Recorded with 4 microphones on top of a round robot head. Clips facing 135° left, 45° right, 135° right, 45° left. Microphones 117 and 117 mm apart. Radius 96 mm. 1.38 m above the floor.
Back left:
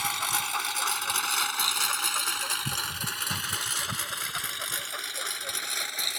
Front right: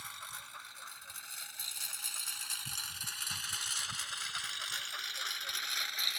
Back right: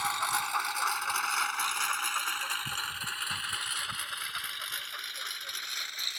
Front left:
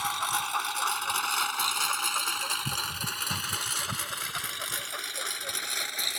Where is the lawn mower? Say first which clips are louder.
Back left 18 dB, front left 1 dB; 130° left; by 6.2 s 90° left.